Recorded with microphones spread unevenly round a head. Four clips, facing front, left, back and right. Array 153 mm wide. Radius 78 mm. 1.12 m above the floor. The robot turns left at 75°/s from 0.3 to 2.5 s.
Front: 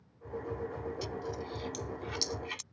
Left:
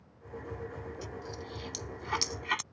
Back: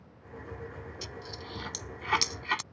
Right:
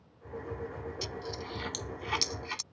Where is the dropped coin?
100° right; by 2.6 s 150° left.